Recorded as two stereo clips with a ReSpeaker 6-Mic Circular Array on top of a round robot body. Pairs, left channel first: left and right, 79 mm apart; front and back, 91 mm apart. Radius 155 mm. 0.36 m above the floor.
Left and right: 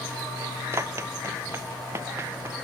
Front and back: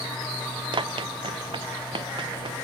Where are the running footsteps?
145° right; by 2.6 s 150° right.